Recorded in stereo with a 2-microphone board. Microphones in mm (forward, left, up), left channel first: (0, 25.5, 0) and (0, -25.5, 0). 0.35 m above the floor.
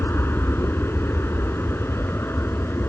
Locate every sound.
0.0 s an aircraft: 50° left (ahead or behind)